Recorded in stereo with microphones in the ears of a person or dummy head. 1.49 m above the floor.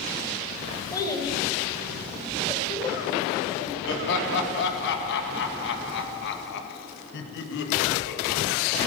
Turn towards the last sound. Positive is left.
turn(degrees=60)  # may be behind; listen again after turning